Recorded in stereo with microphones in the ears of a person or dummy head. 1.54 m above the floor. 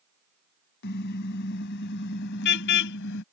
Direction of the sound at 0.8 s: 65° left (ahead or behind).